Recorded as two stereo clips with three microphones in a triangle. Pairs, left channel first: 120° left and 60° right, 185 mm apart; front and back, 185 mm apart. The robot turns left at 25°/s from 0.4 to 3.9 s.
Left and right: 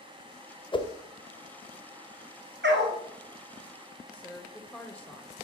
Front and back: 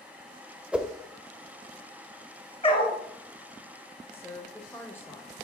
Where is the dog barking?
55° right, 1.2 m; by 3.0 s 65° right, 1.2 m.